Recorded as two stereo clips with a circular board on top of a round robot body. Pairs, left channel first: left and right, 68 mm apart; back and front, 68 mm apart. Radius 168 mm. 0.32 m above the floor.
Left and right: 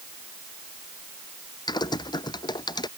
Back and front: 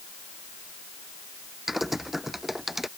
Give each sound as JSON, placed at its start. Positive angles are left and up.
{"t": 1.7, "sound": "typing on a keyboard", "azimuth_deg": 85}